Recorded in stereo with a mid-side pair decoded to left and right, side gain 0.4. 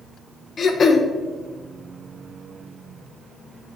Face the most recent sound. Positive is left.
turn(degrees=50)